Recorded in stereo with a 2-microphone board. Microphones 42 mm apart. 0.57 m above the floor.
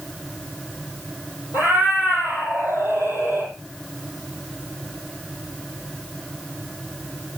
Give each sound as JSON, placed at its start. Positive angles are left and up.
{"t": 1.5, "sound": "a cat meowing", "side_deg": -80, "distance_m": 8.0}